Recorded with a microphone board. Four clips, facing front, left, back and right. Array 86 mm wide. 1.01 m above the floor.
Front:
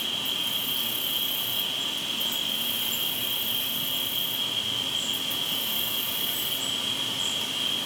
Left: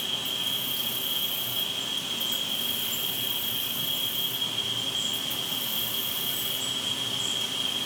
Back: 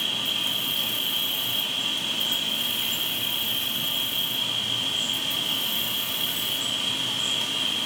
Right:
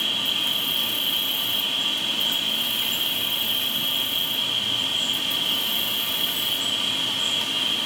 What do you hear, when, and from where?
0.0 s an insect: 110° right, 2.5 m